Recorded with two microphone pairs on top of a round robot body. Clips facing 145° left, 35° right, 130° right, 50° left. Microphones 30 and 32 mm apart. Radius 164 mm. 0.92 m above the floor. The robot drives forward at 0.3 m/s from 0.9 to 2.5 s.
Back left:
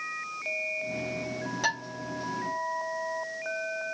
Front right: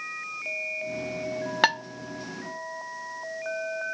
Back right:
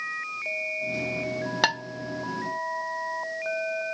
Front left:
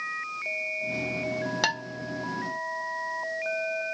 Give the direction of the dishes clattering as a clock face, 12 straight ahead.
2 o'clock.